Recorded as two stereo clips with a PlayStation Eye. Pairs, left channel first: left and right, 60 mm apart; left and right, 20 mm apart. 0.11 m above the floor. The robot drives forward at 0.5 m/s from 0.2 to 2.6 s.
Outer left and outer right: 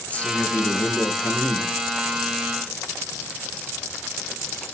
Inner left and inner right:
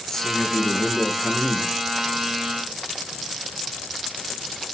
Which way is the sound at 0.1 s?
25° left (ahead or behind).